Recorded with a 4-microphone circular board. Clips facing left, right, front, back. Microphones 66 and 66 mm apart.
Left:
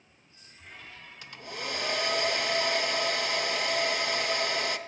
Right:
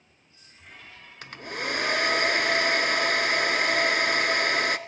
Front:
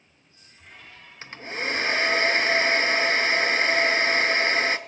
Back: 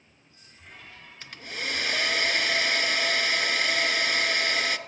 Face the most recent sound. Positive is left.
turn(degrees=-60)